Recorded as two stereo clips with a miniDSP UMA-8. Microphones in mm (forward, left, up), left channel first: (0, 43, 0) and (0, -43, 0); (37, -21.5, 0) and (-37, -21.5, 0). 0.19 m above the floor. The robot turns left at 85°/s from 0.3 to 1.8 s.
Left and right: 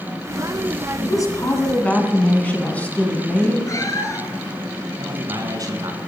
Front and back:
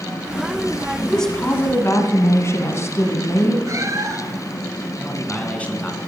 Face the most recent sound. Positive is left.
turn(degrees=-65)